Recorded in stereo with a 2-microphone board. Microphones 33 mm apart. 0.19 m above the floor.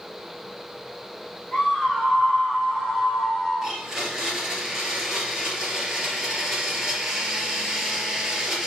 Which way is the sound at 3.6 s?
20° right (ahead or behind).